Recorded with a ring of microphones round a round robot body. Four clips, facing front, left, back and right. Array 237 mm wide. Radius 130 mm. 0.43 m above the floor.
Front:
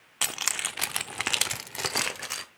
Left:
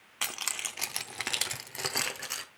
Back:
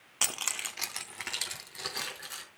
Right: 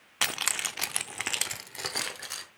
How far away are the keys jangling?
About 0.6 m.